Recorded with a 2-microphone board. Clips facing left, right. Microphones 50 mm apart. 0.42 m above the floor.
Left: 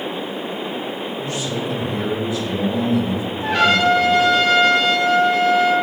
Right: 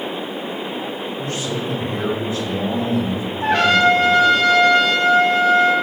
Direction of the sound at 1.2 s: 40° right (ahead or behind).